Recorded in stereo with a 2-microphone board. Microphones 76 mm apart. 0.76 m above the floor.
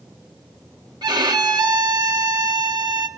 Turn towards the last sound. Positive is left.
turn(degrees=-70)  # may be behind; listen again after turning